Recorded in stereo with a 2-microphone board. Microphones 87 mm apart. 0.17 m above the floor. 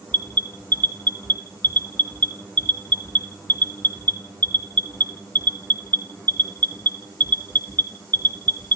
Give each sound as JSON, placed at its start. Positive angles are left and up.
{"t": 0.1, "sound": "an alarm", "side_deg": 20, "distance_m": 1.3}